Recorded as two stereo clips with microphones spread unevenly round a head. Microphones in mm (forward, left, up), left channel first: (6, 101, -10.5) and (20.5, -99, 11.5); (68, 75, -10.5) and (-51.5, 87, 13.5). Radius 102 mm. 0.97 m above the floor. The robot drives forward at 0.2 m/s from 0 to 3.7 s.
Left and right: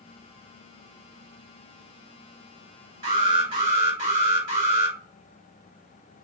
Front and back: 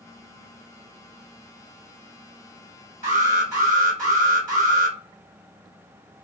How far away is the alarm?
About 2.0 m.